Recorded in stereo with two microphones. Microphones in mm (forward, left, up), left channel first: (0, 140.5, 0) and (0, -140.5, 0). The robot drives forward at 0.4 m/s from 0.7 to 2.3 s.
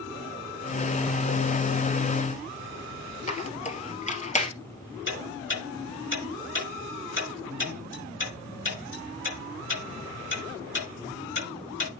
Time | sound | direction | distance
3.3 | a squeak | 25° left (ahead or behind) | 1.6 m
5.1 | ticking | 40° left (ahead or behind) | 6 m